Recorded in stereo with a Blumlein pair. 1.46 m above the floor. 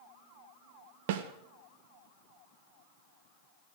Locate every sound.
1.1 s a snare drum: 50° right, 1.7 m